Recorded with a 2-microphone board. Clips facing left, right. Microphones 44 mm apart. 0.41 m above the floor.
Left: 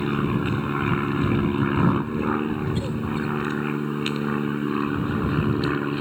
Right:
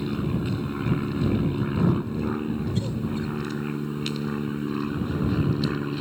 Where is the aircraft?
40° left (ahead or behind); by 6.0 s 30° left (ahead or behind).